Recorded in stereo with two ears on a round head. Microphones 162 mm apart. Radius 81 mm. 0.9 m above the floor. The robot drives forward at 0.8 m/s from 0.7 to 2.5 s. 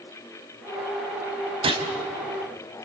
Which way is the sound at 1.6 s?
30° right (ahead or behind).